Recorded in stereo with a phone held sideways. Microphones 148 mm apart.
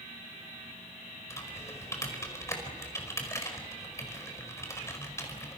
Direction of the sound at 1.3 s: 20° left (ahead or behind).